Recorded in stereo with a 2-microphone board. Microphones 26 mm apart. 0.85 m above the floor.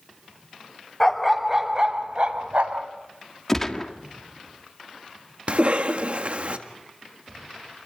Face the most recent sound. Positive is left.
turn(degrees=-55)  # may be behind; listen again after turning